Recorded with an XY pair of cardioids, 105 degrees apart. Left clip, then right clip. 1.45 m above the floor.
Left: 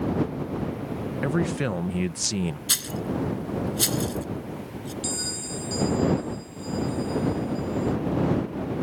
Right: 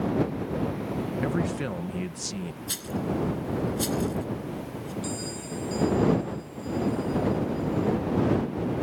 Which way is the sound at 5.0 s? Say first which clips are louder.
Left 4 dB; 55° left.